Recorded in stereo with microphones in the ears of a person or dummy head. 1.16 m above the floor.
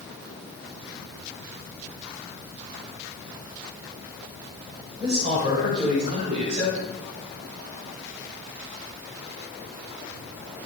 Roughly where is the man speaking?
Right.